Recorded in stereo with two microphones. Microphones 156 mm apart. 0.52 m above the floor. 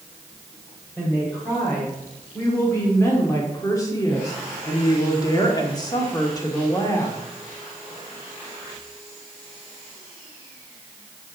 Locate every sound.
1.0 s a woman speaking: 10° left (ahead or behind), 2.5 m; by 7.2 s 20° left (ahead or behind), 1.7 m